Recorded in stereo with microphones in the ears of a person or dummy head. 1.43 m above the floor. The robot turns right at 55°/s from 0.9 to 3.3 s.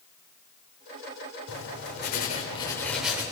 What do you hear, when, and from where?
1.5 s writing: 95° left, 3.5 m; by 3.2 s 170° right, 3.5 m